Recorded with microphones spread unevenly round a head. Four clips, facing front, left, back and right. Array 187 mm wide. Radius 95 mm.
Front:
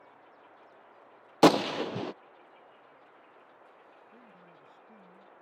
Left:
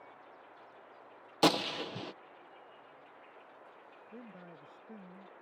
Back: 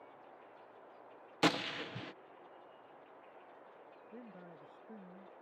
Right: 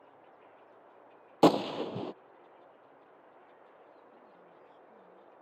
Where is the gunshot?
25° right.